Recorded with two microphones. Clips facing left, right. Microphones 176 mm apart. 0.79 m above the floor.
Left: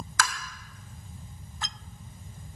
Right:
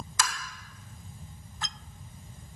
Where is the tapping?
20° right (ahead or behind), 2 m.